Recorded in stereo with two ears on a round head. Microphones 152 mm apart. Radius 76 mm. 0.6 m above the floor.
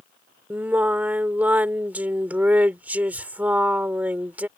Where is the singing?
10° right (ahead or behind).